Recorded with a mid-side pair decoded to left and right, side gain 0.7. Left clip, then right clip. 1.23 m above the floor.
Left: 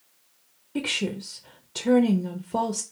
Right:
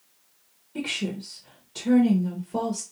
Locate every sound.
0.8 s a woman speaking: 30° left, 0.6 m